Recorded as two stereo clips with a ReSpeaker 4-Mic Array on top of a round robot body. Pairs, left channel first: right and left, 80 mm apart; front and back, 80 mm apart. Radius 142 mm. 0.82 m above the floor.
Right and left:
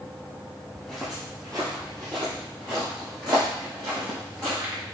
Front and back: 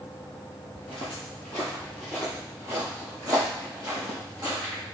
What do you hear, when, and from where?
0.8 s footsteps: 10° right, 0.9 m; by 4.8 s 135° left, 2 m